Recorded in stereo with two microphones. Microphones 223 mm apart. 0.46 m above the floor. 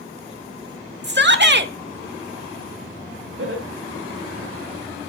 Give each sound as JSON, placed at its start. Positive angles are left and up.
{"t": 1.0, "sound": "a shout", "side_deg": -50, "distance_m": 1.2}
{"t": 3.4, "sound": "laughter", "side_deg": -65, "distance_m": 3.0}